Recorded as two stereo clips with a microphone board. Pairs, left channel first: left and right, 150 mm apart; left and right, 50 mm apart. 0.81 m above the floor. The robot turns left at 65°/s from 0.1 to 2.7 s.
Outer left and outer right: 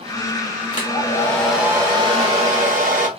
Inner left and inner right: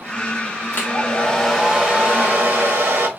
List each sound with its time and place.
0.7 s a hair dryer: 50° left, 1.0 m; by 3.1 s 75° right, 1.0 m